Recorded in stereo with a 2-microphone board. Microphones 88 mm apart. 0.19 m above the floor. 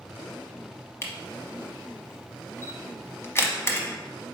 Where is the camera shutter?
30° left (ahead or behind), 0.8 m.